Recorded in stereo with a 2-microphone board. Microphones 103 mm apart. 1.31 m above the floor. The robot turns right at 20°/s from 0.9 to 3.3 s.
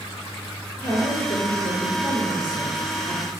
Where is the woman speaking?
85° left, 3.5 m; by 3.3 s 135° left, 3.5 m.